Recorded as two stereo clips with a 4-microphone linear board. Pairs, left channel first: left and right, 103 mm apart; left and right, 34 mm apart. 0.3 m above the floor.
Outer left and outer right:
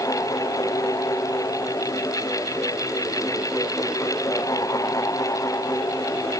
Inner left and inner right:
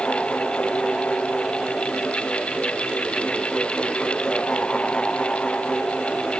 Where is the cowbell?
I don't hear a cowbell.